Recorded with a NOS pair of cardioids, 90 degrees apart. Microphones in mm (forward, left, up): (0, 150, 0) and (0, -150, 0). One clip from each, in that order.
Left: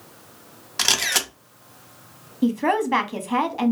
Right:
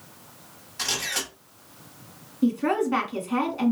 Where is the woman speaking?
35° left, 0.9 m.